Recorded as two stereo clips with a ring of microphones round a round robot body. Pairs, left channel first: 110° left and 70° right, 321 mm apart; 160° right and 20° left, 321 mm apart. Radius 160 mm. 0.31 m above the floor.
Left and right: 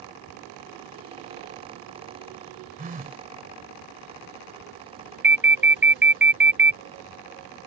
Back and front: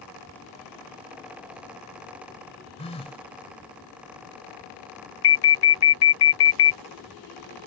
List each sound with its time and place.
2.8 s a phone buzzing: 105° right
5.2 s an alarm: 155° right